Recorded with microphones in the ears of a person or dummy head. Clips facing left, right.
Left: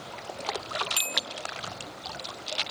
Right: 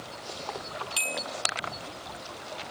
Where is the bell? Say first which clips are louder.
Right 2 dB; 15° left (ahead or behind).